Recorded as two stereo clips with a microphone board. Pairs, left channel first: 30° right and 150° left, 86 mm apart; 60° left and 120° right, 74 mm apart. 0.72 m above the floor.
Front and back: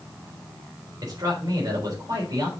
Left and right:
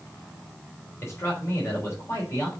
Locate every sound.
1.0 s a man speaking: 110° left, 3.5 m